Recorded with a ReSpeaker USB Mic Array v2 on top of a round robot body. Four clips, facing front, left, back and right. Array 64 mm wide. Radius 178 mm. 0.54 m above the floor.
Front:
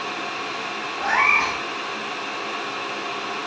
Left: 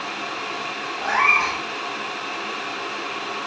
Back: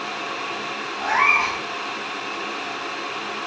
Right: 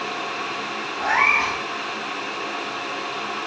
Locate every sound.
1.0 s a cat meowing: 55° right, 1.3 m